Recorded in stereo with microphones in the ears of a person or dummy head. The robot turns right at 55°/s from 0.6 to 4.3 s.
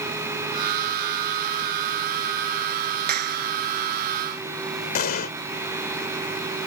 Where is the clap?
45° right (ahead or behind); by 3.5 s 65° right (ahead or behind).